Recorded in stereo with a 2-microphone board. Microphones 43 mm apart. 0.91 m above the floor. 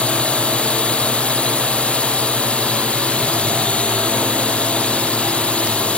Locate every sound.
0.0 s a drone: 25° left (ahead or behind)